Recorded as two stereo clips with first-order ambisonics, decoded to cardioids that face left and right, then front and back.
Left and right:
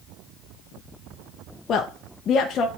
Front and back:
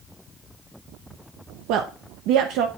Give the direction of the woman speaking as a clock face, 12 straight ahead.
7 o'clock.